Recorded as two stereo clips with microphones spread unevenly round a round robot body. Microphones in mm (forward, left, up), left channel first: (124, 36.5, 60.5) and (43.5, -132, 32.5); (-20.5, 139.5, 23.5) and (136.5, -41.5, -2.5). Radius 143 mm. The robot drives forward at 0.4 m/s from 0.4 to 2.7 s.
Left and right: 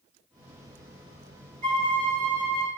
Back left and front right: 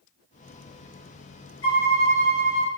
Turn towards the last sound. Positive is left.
turn(degrees=180)